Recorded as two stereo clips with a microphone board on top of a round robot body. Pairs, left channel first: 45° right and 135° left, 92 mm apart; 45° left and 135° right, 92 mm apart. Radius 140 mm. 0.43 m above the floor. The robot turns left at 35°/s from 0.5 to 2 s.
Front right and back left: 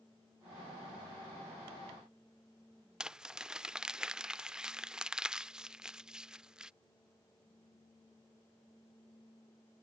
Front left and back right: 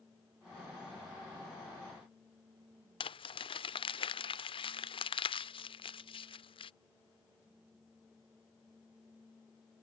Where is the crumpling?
55° left.